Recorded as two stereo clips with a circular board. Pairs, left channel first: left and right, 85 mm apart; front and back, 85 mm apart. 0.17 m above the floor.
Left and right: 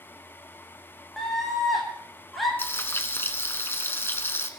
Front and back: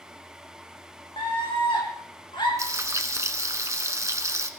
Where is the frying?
145° left, 1.1 m.